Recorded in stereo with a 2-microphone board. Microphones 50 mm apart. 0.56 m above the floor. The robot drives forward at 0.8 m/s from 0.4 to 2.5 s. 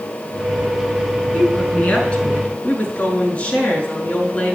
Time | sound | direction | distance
1.3 | a woman speaking | 25° left (ahead or behind) | 5 m